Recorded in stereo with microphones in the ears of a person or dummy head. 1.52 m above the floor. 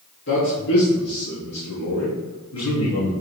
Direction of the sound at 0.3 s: 65° left (ahead or behind).